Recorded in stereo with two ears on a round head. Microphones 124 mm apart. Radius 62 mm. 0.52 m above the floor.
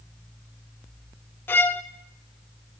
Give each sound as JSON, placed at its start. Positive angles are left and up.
{"t": 1.5, "sound": "a violin", "side_deg": 15, "distance_m": 0.5}